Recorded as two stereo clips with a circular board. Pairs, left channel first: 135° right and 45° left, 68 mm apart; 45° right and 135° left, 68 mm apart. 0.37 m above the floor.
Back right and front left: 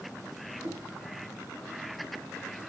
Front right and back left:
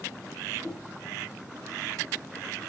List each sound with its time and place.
0.6 s knocking: 35° left, 3 m